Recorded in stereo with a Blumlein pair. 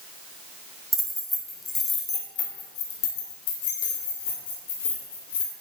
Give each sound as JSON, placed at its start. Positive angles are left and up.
{"t": 0.9, "sound": "keys jangling", "azimuth_deg": -5, "distance_m": 2.5}